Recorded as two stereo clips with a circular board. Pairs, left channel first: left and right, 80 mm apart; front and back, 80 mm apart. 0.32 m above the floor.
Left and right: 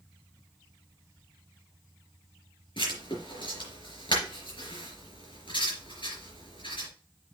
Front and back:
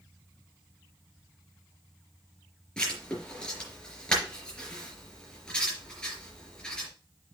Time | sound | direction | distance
2.8 | writing | 80° left | 4 m